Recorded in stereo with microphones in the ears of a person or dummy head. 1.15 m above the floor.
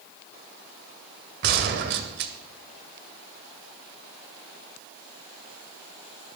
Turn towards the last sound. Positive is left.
turn(degrees=-50)  # may be behind; listen again after turning